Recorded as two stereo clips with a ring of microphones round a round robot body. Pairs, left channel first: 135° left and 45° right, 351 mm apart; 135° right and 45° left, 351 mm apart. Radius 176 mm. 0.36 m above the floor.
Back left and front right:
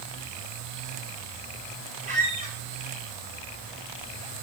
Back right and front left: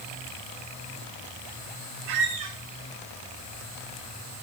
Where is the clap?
No clap in this recording.